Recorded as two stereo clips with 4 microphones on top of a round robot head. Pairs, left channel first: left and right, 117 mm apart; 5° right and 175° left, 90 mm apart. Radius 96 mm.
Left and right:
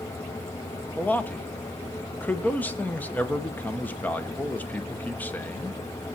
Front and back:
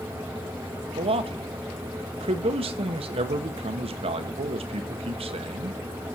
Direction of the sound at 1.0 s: 165° left.